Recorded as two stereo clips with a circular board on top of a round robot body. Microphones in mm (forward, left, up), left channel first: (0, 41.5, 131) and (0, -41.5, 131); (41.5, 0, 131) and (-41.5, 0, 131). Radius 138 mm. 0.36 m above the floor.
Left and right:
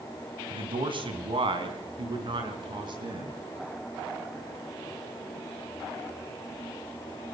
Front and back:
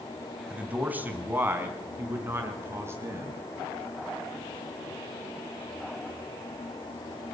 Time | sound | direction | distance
0.5 | a man speaking | 105° right | 3.5 m